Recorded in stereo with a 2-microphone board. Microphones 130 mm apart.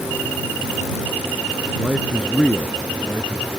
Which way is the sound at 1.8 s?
5° right (ahead or behind).